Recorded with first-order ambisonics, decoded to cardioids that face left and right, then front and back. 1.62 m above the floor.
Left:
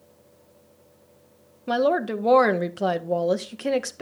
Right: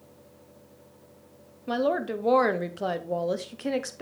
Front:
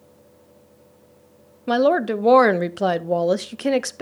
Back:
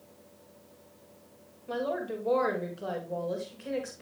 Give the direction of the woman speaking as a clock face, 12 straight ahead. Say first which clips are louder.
Left 4 dB, front 14 dB; 12 o'clock.